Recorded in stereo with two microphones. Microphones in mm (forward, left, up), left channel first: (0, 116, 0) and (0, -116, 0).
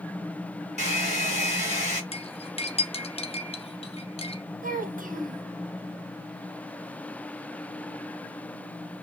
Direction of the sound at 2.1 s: 25° left (ahead or behind).